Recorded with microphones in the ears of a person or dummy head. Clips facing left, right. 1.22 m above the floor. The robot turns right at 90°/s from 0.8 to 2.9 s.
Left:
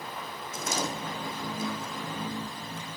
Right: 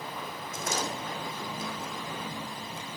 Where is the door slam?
75° left (ahead or behind), 7 m; by 3.0 s 65° right (ahead or behind), 7 m.